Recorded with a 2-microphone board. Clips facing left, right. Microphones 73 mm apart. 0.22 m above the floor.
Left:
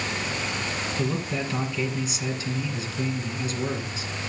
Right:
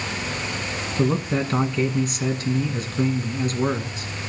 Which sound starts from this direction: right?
A man speaking, at 1.0 s.